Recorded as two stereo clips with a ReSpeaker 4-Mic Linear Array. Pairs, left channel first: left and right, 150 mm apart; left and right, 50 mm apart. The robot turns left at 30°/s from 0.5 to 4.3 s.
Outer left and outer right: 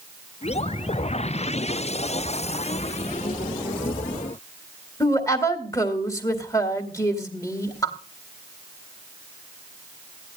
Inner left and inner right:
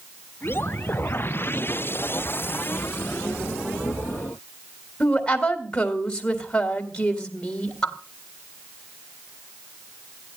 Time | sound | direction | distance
5.0 | a woman speaking | 20° left (ahead or behind) | 2 m